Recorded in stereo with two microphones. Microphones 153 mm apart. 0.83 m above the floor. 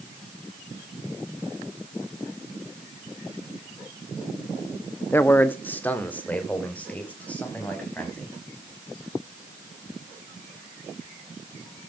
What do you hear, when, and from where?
5.1 s a man speaking: 15° left (ahead or behind), 0.9 m; by 8.3 s 10° left (ahead or behind), 5.5 m